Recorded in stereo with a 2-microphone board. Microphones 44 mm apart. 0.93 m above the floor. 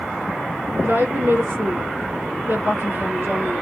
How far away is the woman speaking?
About 1.7 m.